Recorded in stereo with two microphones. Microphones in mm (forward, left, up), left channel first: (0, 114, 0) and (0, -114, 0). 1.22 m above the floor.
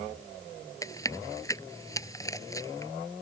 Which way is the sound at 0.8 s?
15° left (ahead or behind).